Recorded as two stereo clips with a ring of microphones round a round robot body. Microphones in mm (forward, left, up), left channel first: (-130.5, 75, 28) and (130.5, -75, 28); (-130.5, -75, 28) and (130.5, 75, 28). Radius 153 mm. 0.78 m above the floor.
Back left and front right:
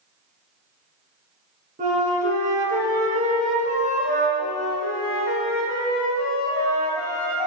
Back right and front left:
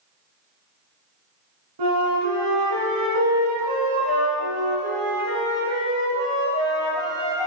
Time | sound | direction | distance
1.8 | a flute | 35° left | 1.9 m
4.4 | a flute | 130° left | 3 m